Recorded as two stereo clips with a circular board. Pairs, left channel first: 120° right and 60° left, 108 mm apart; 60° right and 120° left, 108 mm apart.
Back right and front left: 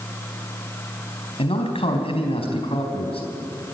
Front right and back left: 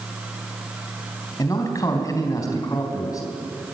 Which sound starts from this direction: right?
A man speaking, at 1.4 s.